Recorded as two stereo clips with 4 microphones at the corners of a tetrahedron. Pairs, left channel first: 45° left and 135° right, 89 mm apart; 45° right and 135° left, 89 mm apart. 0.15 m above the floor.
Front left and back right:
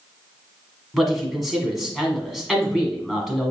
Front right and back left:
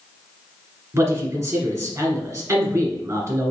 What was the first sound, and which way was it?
A man speaking, 135° left.